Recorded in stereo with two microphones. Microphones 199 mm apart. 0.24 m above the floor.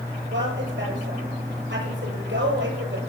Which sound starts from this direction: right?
A woman speaking, at 0.3 s.